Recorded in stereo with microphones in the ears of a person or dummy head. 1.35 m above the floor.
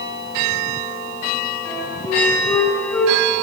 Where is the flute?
15° left (ahead or behind), 3.5 m.